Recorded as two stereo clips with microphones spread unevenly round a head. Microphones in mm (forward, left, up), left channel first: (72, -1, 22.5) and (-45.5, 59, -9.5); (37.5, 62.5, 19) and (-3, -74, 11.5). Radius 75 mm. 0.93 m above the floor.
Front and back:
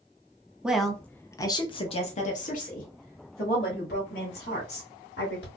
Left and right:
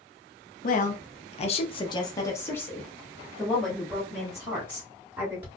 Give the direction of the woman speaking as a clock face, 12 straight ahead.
9 o'clock.